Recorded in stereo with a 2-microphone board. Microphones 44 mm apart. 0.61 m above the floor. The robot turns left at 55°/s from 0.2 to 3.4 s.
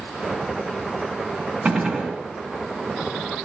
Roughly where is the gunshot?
Right.